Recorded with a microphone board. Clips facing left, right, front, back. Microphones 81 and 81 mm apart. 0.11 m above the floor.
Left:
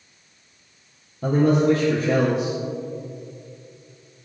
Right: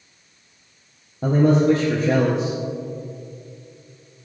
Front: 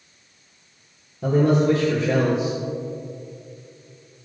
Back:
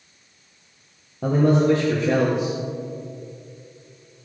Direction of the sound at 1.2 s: 140° right.